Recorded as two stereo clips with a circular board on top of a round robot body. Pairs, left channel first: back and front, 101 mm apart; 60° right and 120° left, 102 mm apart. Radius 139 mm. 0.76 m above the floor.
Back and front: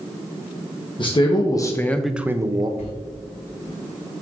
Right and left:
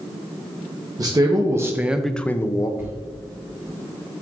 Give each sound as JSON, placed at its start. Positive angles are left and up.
{"t": 1.0, "sound": "a man speaking", "azimuth_deg": 160, "distance_m": 1.1}
{"t": 2.8, "sound": "a sliding door", "azimuth_deg": -170, "distance_m": 1.1}